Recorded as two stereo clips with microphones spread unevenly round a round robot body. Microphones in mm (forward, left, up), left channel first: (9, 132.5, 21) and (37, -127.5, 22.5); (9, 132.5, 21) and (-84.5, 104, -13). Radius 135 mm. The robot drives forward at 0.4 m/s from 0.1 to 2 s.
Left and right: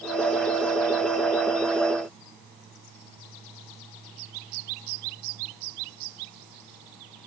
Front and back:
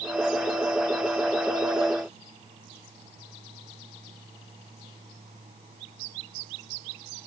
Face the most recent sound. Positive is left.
No sound to turn to.